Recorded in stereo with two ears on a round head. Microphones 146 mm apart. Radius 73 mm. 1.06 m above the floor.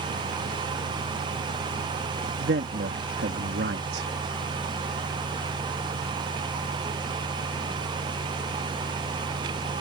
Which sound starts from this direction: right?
A man speaking, at 2.4 s.